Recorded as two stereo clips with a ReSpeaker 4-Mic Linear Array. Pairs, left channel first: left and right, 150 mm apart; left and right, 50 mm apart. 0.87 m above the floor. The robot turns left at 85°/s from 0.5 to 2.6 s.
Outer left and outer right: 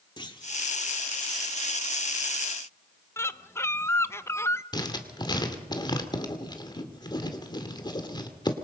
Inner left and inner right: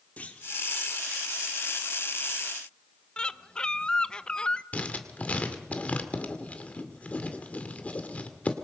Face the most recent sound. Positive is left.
turn(degrees=30)  # may be behind; listen again after turning